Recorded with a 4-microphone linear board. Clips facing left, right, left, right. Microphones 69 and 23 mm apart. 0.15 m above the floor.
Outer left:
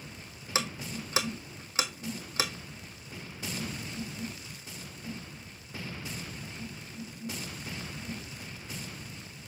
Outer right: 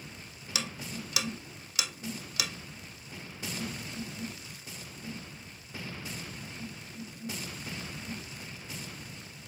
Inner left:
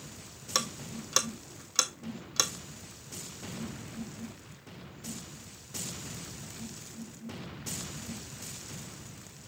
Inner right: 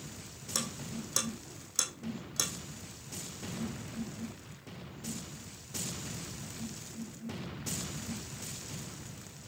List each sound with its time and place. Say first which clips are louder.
0.6 s ticking: outer left 4 dB, inner left 4 dB; 35° left (ahead or behind), 1.1 m